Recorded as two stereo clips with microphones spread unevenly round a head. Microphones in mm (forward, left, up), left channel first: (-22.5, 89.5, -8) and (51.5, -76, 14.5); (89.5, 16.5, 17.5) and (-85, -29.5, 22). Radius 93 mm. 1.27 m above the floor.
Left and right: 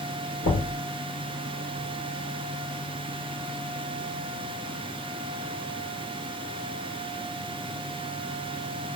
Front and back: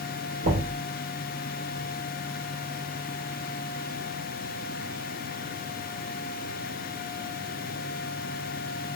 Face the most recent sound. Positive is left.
turn(degrees=150)